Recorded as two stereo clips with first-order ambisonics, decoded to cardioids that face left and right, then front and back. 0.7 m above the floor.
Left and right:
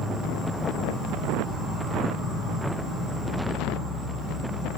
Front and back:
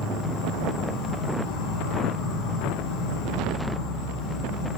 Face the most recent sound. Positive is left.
turn(degrees=-10)